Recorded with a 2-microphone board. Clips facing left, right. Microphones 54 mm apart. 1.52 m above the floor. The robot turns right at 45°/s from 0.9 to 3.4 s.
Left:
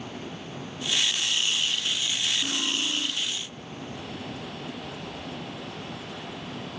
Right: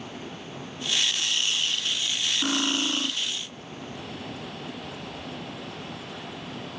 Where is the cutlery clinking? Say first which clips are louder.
Right 3 dB; 90° right, 1.8 m; by 3.1 s 60° right, 1.8 m.